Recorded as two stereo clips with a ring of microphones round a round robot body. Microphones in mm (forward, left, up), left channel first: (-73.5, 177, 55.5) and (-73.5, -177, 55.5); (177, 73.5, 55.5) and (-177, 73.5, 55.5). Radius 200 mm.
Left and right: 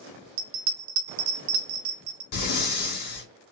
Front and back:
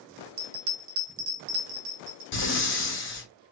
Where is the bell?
145° right, 0.7 m.